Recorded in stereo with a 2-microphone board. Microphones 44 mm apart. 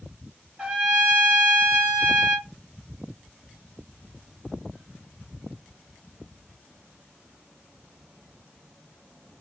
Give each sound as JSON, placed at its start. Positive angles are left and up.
{"t": 0.6, "sound": "a trumpet", "side_deg": -25, "distance_m": 2.5}